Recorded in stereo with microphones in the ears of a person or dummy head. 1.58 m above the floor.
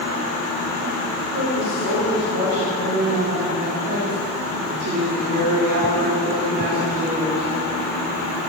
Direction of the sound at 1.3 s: 60° right (ahead or behind).